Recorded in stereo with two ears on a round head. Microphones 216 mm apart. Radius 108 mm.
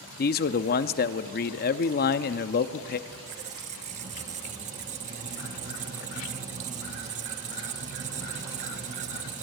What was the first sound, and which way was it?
A man speaking, 40° left (ahead or behind).